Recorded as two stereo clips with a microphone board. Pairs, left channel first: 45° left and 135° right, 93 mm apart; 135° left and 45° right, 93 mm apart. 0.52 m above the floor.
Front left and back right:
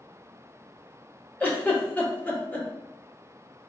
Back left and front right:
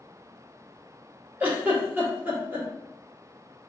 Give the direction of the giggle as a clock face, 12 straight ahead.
12 o'clock.